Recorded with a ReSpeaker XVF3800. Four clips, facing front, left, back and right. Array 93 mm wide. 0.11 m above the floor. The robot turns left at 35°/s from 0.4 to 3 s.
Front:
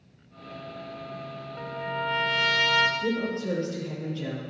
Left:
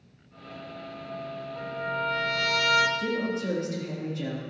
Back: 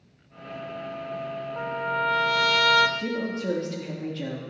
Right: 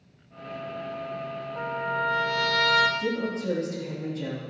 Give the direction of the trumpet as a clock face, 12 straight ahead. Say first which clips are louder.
Right 3 dB, back 4 dB; 5 o'clock.